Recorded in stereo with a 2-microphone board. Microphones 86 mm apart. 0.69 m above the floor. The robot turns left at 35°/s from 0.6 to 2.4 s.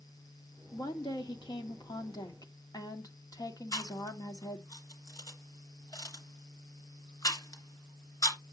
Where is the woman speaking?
115° left, 1.6 m; by 4.7 s 55° left, 1.6 m.